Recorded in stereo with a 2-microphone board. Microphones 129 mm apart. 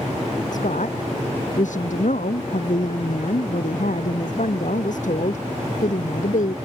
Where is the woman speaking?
80° left.